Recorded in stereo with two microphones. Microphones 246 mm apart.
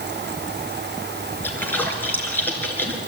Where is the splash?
5° left (ahead or behind), 3.5 m.